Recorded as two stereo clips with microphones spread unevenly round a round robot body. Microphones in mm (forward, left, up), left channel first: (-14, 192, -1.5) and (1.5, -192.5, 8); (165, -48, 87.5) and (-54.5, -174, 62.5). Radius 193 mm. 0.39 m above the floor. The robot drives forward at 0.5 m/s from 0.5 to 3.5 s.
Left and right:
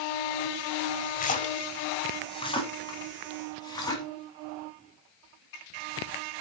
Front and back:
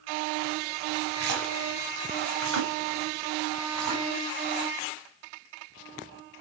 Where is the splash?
160° left, 0.9 m; by 4.0 s 175° left, 2.0 m.